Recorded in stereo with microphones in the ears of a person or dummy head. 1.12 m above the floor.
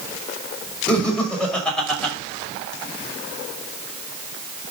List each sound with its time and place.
0.9 s laughter: 10° left (ahead or behind), 5.5 m; by 2.1 s 5° left (ahead or behind), 4.5 m